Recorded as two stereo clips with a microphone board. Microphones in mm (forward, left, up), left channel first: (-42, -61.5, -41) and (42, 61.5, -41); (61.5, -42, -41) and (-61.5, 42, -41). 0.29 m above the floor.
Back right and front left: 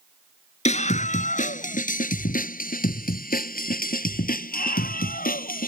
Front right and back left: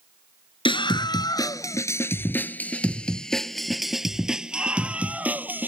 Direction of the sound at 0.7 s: 90° right.